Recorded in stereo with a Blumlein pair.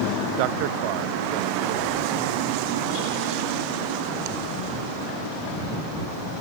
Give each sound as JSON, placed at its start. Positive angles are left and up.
{"t": 0.4, "sound": "a man speaking", "azimuth_deg": -45}